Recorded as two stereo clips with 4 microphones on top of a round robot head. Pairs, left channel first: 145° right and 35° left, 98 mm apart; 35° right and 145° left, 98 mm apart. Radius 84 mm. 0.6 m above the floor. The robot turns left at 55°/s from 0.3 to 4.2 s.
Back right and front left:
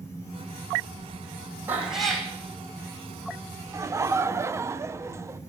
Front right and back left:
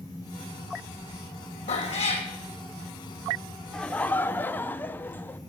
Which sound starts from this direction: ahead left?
Laughter, at 3.7 s.